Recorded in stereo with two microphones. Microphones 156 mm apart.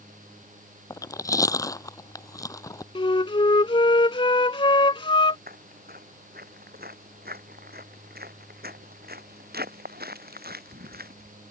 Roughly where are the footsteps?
Right.